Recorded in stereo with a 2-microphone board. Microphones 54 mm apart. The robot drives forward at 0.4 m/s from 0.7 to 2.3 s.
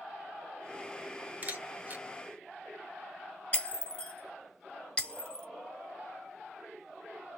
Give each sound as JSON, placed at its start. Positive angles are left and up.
{"t": 1.4, "sound": "a camera shutter", "side_deg": -35, "distance_m": 1.0}
{"t": 3.5, "sound": "breaking glass", "side_deg": 20, "distance_m": 2.0}